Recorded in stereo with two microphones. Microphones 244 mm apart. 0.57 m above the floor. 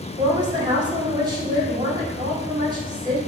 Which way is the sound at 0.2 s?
20° right (ahead or behind).